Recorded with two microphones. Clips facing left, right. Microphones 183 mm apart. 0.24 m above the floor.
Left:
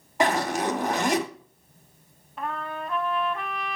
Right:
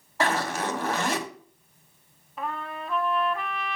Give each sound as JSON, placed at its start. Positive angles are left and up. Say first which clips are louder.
{"t": 0.2, "sound": "a zipper", "louder": "left 3 dB", "side_deg": 20, "distance_m": 1.5}
{"t": 2.4, "sound": "a trumpet", "louder": "left 1 dB", "side_deg": 0, "distance_m": 0.6}